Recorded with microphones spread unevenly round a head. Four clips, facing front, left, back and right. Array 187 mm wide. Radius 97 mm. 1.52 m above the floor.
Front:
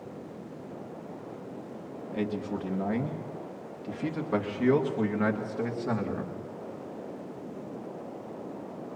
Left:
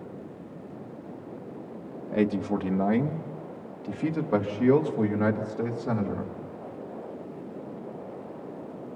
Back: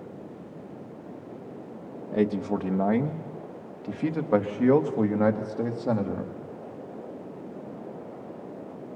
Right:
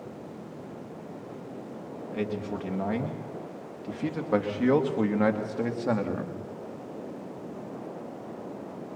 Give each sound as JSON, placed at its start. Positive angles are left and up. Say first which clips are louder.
{"t": 2.1, "sound": "a man speaking", "louder": "left 7 dB, back 7 dB", "azimuth_deg": 160, "distance_m": 2.0}